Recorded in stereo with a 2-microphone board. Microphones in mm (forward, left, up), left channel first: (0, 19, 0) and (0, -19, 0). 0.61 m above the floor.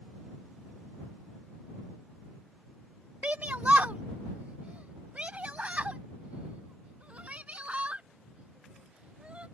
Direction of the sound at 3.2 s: 40° right (ahead or behind).